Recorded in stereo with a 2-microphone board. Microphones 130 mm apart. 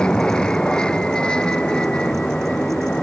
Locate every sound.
0.0 s an aircraft: 5° left (ahead or behind)